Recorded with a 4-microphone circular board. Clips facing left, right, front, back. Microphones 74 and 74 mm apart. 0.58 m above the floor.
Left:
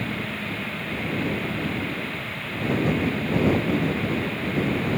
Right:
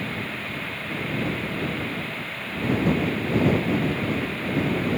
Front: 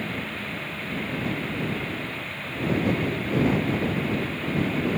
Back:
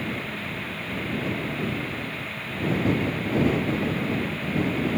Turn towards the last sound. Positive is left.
No sound to turn to.